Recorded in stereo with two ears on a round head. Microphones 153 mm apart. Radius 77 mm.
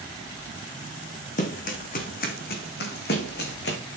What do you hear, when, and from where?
1.4 s running footsteps: 45° left (ahead or behind), 2.5 m; by 3.8 s 65° left (ahead or behind), 3.5 m